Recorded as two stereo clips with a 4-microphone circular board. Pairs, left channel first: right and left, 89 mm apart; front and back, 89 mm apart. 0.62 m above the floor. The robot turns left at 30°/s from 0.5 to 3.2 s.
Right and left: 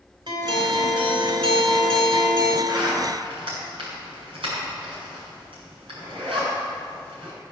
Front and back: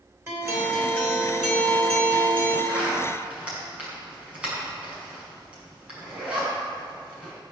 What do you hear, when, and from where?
0.3 s a guitar: 120° left, 3 m; by 2.6 s 60° left, 3 m
2.7 s a zipper: 120° left, 6 m; by 7.3 s 105° left, 6 m